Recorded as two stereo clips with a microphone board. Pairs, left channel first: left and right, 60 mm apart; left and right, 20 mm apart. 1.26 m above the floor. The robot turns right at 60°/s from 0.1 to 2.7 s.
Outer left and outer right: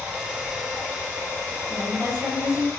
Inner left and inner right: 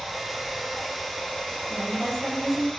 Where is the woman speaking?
50° right, 1.2 m; by 2.7 s 10° left, 1.2 m.